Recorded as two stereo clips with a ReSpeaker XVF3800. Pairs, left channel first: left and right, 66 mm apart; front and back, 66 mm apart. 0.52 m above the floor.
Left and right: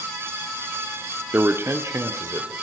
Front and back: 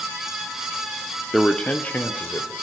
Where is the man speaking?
80° right, 0.8 m; by 2.5 s 55° right, 1.7 m.